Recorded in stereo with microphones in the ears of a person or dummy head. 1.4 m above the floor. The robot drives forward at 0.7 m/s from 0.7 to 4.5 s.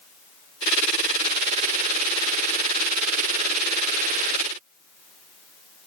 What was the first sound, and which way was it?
Only background noise.